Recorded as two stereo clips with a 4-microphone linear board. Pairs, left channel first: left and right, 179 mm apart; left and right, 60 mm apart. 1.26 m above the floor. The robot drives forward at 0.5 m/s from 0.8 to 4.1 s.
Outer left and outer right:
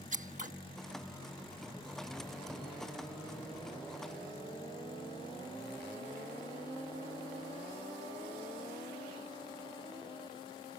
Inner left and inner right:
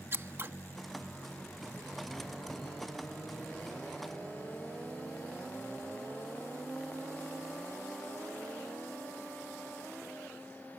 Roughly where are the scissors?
Right.